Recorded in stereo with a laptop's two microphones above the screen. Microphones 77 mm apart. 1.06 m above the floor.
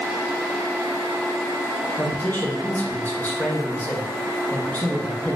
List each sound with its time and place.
2.0 s a man speaking: 20° left (ahead or behind), 0.6 m